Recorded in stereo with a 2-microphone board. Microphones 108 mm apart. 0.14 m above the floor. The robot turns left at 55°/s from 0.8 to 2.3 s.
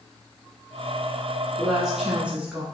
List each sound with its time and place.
1.6 s a woman speaking: 5° left (ahead or behind), 1.1 m; by 2.6 s 10° right (ahead or behind), 1.1 m